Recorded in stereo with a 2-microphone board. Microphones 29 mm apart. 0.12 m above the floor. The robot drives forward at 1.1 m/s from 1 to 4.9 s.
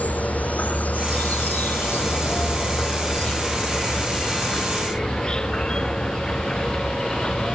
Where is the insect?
55° left (ahead or behind); by 7.5 s 25° left (ahead or behind).